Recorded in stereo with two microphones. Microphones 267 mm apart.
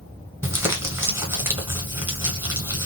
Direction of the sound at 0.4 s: 10° right (ahead or behind).